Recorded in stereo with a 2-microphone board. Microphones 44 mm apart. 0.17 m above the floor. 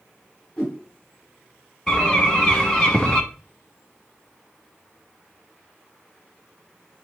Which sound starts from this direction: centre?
A bird, at 1.9 s.